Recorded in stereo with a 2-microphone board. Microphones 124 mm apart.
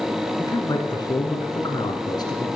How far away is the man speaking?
About 1.7 m.